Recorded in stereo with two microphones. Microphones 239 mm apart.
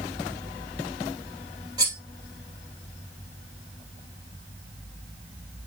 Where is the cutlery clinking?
15° right (ahead or behind), 2 m.